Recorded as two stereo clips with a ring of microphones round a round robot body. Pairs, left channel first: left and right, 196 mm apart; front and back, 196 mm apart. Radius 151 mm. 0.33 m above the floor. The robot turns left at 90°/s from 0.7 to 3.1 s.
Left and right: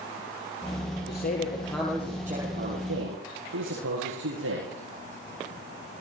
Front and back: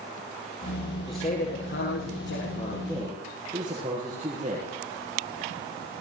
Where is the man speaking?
75° left, 9 m; by 4.7 s 110° right, 9 m.